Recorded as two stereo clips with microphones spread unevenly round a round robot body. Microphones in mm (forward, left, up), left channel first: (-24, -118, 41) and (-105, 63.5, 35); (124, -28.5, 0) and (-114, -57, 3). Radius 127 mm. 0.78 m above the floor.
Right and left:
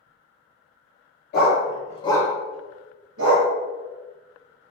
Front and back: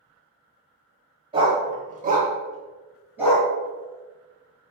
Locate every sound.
1.3 s a dog barking: 105° right, 1.2 m; by 3.5 s 100° left, 1.1 m